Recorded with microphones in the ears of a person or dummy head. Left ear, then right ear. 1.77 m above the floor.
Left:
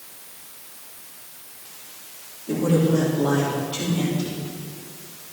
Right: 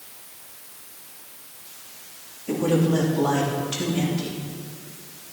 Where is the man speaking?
80° right, 3 m.